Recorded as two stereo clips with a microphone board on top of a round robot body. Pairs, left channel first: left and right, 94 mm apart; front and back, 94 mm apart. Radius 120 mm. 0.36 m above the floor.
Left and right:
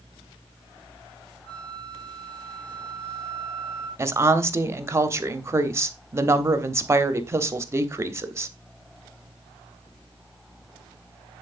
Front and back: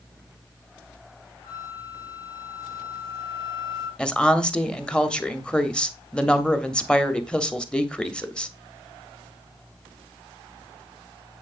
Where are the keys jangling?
I don't hear keys jangling.